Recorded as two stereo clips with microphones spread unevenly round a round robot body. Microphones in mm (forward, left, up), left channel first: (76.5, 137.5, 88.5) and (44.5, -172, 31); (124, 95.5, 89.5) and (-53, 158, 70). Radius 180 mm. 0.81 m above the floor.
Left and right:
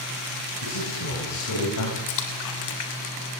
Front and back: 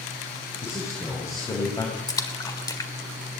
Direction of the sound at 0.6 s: 55° left.